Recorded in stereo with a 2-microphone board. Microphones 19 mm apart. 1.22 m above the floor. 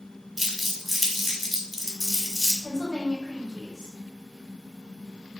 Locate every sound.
0.4 s crumpling: 15° right (ahead or behind), 1.2 m
2.6 s a woman speaking: 30° left (ahead or behind), 2 m